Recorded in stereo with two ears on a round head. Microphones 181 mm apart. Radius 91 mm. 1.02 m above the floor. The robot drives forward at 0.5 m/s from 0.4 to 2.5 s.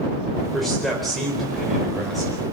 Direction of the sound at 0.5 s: Centre (ahead or behind).